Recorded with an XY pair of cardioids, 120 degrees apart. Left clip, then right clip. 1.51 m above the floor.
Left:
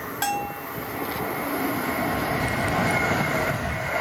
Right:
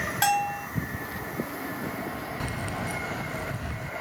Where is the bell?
20° right.